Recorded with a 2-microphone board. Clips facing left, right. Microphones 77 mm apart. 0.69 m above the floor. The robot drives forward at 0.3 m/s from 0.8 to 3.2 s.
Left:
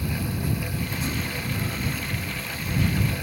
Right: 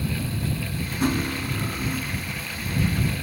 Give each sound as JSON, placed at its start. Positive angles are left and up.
{"t": 1.0, "sound": "cutlery clinking", "side_deg": -55, "distance_m": 0.6}